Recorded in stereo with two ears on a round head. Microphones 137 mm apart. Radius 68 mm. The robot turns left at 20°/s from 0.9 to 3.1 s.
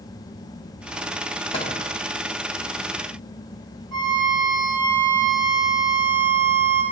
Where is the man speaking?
No man speaking in this recording.